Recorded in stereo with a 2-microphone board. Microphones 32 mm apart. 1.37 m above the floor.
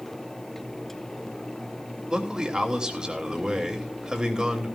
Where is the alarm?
No alarm in this recording.